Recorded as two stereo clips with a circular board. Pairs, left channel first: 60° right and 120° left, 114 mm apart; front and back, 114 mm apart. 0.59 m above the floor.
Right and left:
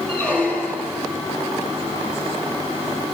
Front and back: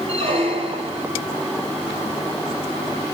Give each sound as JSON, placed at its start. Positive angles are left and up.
{"t": 0.1, "sound": "a squeak", "azimuth_deg": -140, "distance_m": 3.0}